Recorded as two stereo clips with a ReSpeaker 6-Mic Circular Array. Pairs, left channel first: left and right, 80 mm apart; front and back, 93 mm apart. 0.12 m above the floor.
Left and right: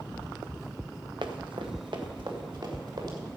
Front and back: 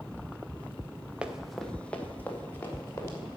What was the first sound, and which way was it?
Running footsteps, 100° right.